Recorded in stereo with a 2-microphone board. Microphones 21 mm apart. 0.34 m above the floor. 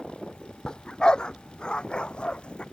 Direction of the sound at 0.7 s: 30° left (ahead or behind).